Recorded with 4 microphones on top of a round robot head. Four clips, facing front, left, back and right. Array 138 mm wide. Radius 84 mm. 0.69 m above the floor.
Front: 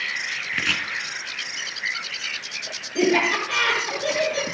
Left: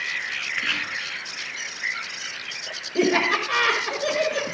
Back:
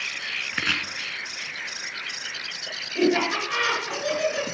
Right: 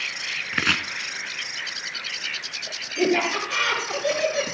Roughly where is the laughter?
Left.